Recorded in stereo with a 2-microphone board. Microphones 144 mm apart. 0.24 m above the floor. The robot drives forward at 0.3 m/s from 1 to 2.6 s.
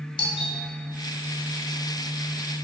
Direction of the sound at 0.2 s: 40° left (ahead or behind).